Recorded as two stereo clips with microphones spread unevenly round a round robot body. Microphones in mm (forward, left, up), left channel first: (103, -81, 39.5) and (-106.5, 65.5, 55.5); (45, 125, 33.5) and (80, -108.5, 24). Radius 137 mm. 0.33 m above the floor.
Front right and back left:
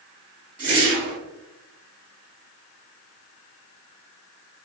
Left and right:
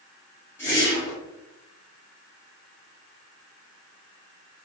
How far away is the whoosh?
About 1.7 m.